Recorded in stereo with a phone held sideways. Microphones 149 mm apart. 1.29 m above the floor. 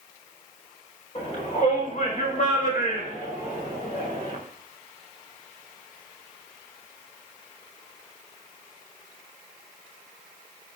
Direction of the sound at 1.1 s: 55° left (ahead or behind).